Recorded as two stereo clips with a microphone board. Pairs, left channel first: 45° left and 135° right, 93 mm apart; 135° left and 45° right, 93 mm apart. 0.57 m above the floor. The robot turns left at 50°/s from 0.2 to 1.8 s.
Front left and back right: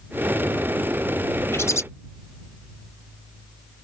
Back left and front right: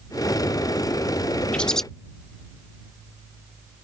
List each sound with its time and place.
1.5 s a bird: 70° left; by 1.8 s 55° left